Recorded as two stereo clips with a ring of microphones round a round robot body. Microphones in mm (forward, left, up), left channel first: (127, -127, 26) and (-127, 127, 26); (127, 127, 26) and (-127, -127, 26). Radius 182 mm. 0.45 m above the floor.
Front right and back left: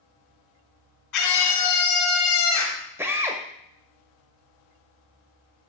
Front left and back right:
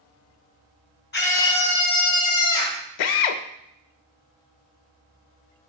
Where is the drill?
50° left, 0.6 m.